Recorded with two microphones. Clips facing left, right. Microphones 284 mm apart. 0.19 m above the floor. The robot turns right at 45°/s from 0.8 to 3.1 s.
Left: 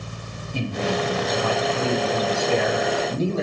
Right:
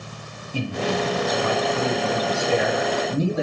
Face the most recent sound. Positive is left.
turn(degrees=-15)  # may be behind; listen again after turning